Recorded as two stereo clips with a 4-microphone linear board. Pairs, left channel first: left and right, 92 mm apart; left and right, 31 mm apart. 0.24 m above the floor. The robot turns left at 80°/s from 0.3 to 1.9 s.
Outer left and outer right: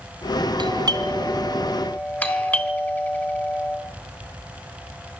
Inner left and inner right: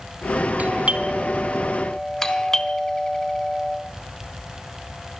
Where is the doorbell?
95° right, 3.5 m; by 3.8 s 160° left, 3.5 m.